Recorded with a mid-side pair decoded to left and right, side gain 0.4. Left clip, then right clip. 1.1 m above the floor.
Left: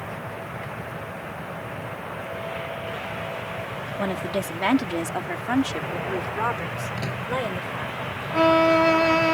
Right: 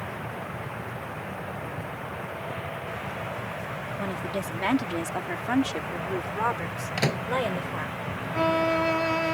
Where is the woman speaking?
45° left; by 7.9 s 15° right.